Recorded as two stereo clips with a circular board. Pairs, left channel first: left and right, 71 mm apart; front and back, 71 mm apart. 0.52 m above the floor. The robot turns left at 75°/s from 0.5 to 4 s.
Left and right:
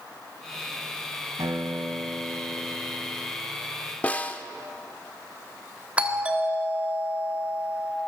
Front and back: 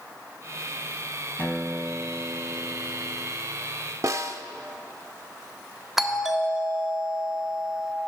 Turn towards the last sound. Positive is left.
turn(degrees=-100)